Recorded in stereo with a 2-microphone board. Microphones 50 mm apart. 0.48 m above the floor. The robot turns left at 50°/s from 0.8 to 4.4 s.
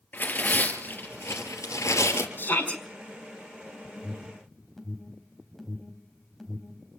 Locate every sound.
0.1 s tearing paper: 140° left, 4 m; by 2.3 s 70° left, 4 m
2.4 s a shout: 55° left (ahead or behind), 3.5 m; by 2.8 s 35° left (ahead or behind), 3.5 m
4.0 s an alarm: 25° left (ahead or behind), 4 m; by 7.0 s 5° left (ahead or behind), 4 m